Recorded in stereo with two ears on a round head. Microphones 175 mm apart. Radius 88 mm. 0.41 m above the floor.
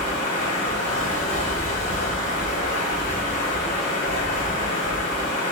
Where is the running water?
45° left (ahead or behind), 1.3 m.